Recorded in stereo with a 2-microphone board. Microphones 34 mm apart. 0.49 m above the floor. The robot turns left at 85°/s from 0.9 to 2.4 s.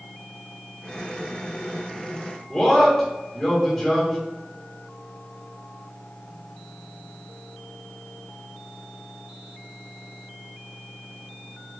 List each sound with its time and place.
2.5 s a man speaking: 5° left (ahead or behind), 1.2 m